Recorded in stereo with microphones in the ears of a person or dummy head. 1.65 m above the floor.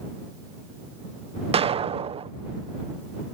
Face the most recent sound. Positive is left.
turn(degrees=-30)  # may be behind; listen again after turning